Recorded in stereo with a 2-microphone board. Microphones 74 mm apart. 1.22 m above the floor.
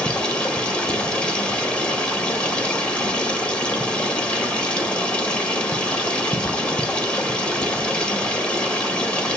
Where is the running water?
15° left (ahead or behind), 2.0 m.